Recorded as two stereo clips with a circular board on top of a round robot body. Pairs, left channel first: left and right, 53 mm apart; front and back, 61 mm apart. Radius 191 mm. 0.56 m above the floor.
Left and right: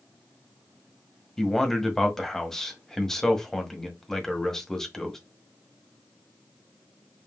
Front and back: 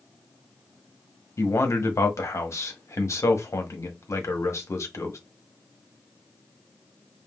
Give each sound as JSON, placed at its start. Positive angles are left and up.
{"t": 1.4, "sound": "a man speaking", "azimuth_deg": 10, "distance_m": 1.5}